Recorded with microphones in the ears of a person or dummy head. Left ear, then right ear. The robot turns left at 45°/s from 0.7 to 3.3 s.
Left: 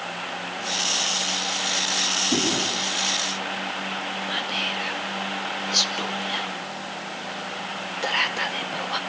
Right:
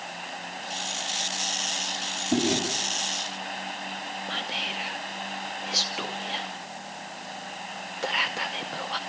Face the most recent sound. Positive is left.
turn(degrees=0)  # may be behind; listen again after turning